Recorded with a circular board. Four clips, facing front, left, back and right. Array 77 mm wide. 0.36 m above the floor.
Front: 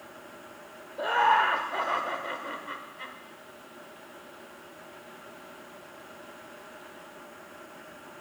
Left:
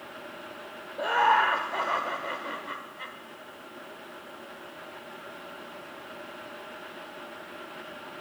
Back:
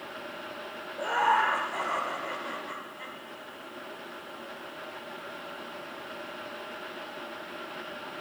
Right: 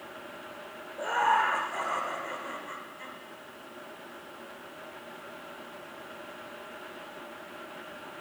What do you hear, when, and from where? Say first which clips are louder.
1.0 s laughter: left 3 dB, front 2 dB; 60° left, 0.8 m